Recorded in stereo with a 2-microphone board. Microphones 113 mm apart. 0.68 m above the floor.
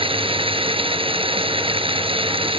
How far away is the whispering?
No whispering in this recording.